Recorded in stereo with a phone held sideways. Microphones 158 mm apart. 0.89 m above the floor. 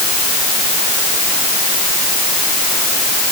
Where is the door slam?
No door slam in this recording.